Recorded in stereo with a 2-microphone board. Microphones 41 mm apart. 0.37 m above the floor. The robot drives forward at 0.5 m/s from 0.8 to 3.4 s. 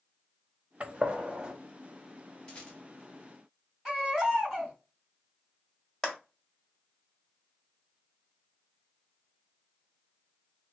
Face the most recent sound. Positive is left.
turn(degrees=5)  # may be behind; listen again after turning